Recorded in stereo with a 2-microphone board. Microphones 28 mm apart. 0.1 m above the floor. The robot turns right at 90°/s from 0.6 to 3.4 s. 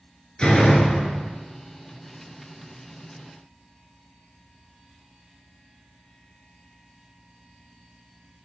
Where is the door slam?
95° left, 1.1 m; by 1.3 s 160° left, 1.1 m.